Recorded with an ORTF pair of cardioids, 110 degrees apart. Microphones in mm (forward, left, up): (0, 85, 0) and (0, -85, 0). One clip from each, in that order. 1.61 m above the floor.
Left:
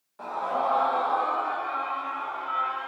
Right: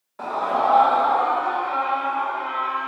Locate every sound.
0.2 s a scream: 50° right, 1.2 m; by 2.9 s 70° right, 2.5 m